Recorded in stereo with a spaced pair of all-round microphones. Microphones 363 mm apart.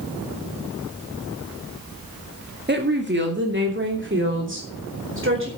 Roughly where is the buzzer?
No buzzer in this recording.